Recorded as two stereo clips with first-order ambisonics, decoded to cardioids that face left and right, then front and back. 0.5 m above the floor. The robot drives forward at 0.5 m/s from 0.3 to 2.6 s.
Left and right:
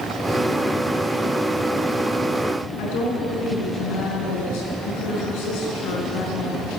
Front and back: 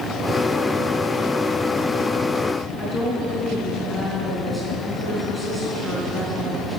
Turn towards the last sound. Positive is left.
turn(degrees=95)